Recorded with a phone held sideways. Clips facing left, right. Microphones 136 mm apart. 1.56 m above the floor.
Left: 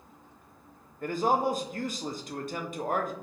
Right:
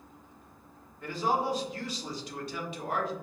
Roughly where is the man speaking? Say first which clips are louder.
Left 3 dB; left.